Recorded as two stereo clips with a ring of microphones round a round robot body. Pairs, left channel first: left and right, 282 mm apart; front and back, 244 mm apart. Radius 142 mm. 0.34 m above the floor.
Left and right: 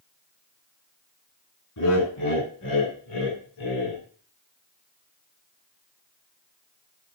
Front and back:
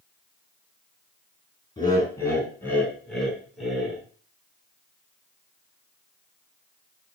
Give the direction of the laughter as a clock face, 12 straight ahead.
10 o'clock.